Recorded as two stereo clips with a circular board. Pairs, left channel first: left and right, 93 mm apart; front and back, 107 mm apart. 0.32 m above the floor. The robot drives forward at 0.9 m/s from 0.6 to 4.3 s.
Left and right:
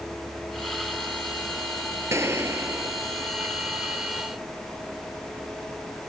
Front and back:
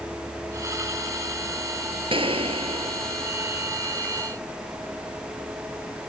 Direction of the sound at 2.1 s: 150° right.